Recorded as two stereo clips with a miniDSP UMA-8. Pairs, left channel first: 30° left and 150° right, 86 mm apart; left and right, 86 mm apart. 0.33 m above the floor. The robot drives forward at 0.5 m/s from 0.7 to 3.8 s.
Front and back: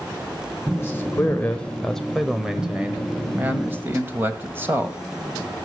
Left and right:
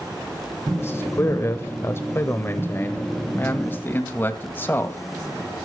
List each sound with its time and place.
0.8 s a man speaking: 60° left, 1.2 m; by 5.0 s 150° left, 1.6 m